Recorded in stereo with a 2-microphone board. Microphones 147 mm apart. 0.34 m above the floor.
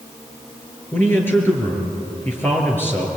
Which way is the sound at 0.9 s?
15° left (ahead or behind).